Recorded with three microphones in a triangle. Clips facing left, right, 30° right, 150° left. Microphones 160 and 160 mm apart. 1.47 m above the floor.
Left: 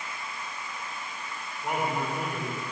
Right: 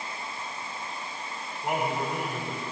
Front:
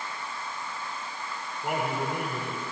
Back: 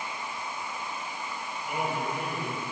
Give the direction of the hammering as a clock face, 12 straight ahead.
No hammering in this recording.